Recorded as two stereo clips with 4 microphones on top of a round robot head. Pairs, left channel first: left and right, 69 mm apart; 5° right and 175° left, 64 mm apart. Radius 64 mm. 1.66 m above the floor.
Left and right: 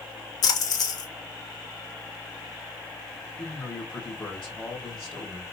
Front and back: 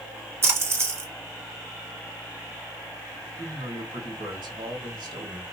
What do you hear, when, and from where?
0.4 s a splash: 120° left, 1.6 m
3.4 s a man speaking: 165° left, 2 m